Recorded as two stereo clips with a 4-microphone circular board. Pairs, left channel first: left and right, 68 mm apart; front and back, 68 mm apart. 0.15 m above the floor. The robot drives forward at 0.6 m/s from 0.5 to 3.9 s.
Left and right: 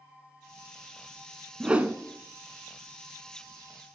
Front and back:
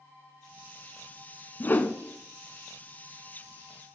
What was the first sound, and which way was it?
A whoosh, 25° right.